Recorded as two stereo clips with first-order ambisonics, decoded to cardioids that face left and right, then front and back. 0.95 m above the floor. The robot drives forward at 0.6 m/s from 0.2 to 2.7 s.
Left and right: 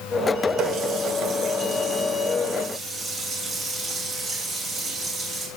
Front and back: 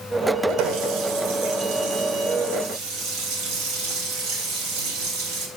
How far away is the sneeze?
No sneeze in this recording.